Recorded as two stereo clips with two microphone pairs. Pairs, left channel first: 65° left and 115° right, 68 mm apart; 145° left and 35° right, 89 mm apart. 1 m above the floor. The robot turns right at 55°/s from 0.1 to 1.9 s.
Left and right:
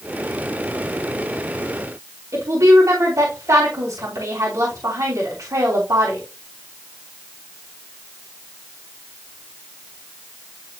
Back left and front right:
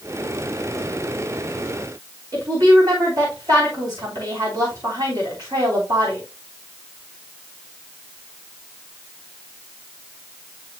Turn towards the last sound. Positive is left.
turn(degrees=-80)